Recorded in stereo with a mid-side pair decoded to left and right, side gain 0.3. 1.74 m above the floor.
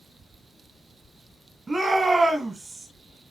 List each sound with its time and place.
1.7 s a shout: 40° right, 1.5 m